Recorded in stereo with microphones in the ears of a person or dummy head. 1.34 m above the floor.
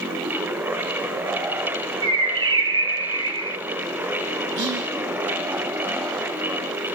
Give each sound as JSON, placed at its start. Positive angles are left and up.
{"t": 2.0, "sound": "a bird", "side_deg": -25, "distance_m": 1.3}
{"t": 4.6, "sound": "whispering", "side_deg": -65, "distance_m": 1.8}